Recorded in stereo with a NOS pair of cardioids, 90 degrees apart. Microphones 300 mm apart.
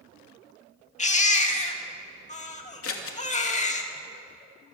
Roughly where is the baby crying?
Ahead left.